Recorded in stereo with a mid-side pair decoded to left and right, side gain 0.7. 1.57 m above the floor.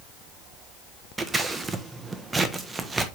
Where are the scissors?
20° right, 1.2 m.